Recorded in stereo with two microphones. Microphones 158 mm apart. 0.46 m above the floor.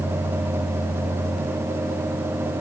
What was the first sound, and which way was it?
Only background noise.